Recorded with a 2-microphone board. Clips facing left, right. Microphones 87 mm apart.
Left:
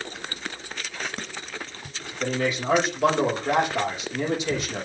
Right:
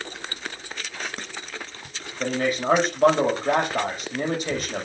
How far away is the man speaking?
About 7 m.